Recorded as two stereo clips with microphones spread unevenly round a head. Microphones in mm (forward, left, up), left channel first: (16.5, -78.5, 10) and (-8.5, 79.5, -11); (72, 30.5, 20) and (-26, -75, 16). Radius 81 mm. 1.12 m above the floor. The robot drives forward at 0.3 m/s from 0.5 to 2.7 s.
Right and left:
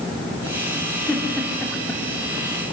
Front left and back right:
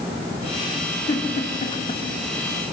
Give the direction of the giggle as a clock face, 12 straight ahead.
12 o'clock.